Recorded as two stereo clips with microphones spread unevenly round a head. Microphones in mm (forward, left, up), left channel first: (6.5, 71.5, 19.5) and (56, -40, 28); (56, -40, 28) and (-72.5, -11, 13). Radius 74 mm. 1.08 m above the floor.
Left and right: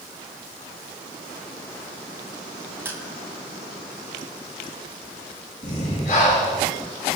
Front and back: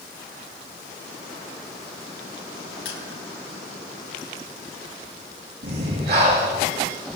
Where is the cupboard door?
I don't hear a cupboard door.